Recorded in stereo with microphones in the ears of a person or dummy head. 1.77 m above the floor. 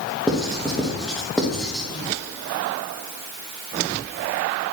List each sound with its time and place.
0.3 s writing: centre (ahead or behind), 1.1 m